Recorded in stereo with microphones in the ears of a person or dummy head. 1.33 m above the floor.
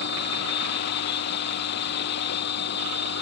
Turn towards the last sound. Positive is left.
turn(degrees=60)  # may be behind; listen again after turning